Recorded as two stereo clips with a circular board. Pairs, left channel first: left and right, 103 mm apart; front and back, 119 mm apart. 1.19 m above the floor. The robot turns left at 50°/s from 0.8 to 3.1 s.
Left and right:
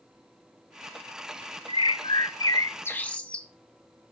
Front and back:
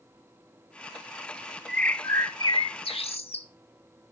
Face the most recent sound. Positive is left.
turn(degrees=15)